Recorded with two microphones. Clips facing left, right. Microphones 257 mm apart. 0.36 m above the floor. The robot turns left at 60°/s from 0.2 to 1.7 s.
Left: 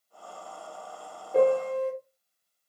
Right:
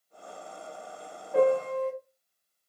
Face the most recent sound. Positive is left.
turn(degrees=-75)  # may be behind; listen again after turning